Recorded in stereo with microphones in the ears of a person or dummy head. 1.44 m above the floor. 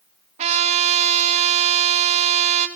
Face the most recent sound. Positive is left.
turn(degrees=-40)  # may be behind; listen again after turning